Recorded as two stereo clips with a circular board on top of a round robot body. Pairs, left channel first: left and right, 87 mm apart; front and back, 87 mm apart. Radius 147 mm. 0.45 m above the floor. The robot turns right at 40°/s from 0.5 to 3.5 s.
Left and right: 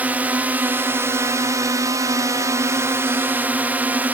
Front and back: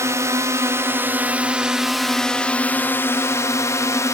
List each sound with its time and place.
0.0 s a drone: 150° right; by 4.1 s 30° right